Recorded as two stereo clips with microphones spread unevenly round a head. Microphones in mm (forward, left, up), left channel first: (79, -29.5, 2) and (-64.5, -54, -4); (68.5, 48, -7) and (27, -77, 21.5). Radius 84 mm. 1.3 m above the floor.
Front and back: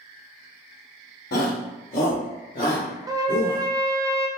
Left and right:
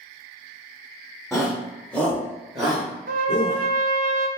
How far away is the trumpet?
About 0.6 m.